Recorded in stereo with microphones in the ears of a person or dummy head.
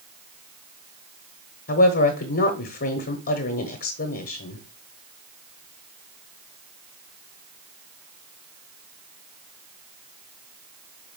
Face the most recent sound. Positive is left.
turn(degrees=55)  # may be behind; listen again after turning